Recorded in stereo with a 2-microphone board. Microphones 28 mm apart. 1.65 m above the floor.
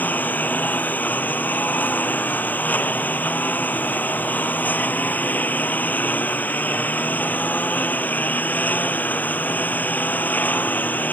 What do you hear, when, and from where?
0.0 s a lawn mower: 70° left (ahead or behind)